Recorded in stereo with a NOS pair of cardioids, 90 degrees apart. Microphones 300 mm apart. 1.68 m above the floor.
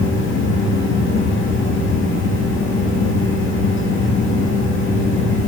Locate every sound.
0.0 s a fan: 45° left, 2 m